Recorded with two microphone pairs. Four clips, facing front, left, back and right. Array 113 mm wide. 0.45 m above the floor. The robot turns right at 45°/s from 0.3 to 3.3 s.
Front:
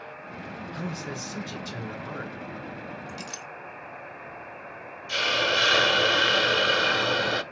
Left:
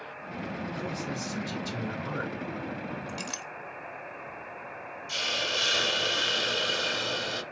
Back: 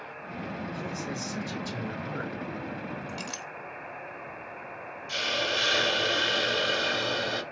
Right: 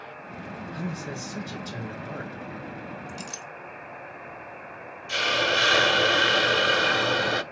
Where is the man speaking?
Straight ahead, 3.5 m; by 2.3 s 70° left, 3.5 m.